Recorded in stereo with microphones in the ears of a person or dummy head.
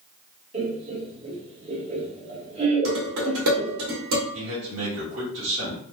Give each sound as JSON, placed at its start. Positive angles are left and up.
{"t": 0.5, "sound": "laughter", "side_deg": -35, "distance_m": 1.5}
{"t": 2.9, "sound": "dishes clattering", "side_deg": -70, "distance_m": 1.6}
{"t": 4.3, "sound": "a man speaking", "side_deg": -70, "distance_m": 1.4}